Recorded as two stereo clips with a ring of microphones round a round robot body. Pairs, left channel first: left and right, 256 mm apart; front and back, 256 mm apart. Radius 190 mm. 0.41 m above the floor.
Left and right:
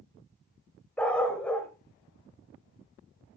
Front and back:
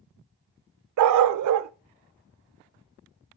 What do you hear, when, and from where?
1.0 s a dog barking: 175° left, 0.5 m